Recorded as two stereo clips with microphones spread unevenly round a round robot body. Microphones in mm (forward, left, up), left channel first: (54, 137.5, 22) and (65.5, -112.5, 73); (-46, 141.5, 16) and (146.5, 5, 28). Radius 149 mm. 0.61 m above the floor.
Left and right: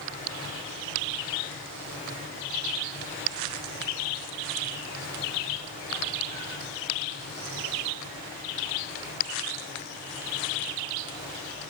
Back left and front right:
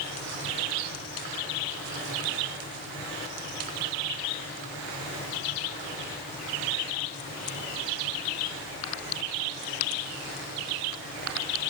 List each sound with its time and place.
Only background noise.